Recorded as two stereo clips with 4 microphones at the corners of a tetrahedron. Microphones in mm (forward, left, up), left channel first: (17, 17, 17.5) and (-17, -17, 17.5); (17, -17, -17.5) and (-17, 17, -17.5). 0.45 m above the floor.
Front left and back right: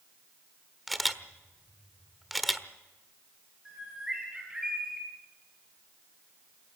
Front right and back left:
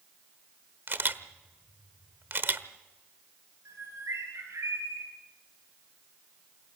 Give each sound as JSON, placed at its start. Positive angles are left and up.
{"t": 0.9, "sound": "a camera shutter", "azimuth_deg": 135, "distance_m": 1.2}
{"t": 3.6, "sound": "a bird", "azimuth_deg": 145, "distance_m": 7.0}